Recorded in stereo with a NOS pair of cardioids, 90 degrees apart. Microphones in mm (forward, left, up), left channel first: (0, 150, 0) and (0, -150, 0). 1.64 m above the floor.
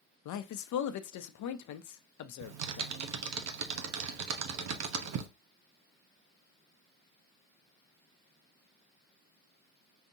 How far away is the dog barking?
I don't hear a dog barking.